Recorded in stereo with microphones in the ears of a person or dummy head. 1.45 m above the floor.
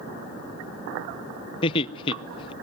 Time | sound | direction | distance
1.6 | laughter | 30° left (ahead or behind) | 0.6 m